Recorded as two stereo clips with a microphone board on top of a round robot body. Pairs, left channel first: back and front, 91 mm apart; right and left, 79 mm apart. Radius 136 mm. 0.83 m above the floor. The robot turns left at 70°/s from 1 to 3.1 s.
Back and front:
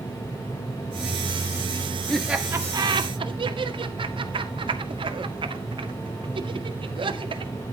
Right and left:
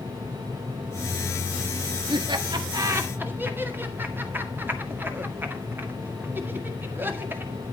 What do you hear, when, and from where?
2.1 s laughter: 95° left, 2 m; by 7.5 s 25° left, 2 m